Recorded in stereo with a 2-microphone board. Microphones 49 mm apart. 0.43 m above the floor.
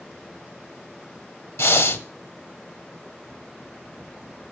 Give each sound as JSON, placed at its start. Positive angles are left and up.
{"t": 1.6, "sound": "breathing", "side_deg": 65, "distance_m": 1.6}